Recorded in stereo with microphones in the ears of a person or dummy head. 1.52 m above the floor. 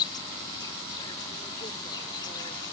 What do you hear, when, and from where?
0.0 s an insect: 25° left (ahead or behind)